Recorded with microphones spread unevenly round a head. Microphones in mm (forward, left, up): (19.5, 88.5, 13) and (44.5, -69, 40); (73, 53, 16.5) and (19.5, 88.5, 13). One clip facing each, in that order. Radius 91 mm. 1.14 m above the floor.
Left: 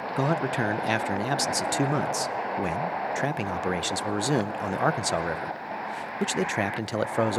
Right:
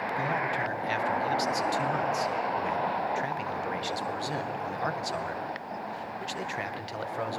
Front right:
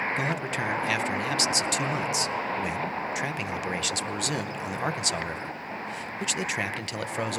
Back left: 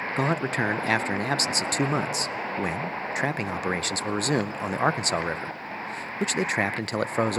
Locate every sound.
0.2 s a man speaking: 105° left, 0.6 m